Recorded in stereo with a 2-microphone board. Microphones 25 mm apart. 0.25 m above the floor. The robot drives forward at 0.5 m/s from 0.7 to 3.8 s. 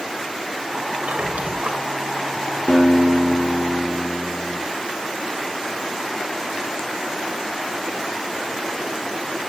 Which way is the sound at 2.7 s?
75° left (ahead or behind).